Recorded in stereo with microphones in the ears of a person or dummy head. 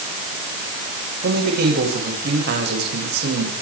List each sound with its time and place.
1.2 s a man speaking: 55° right (ahead or behind), 8.5 m